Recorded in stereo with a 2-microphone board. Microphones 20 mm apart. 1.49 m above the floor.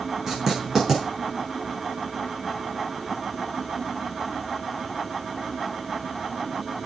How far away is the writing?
About 6 m.